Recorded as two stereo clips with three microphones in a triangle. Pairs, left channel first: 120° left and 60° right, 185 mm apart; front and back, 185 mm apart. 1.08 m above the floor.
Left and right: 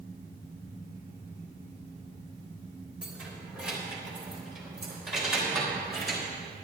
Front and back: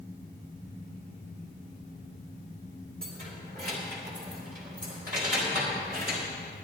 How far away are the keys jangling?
About 2 m.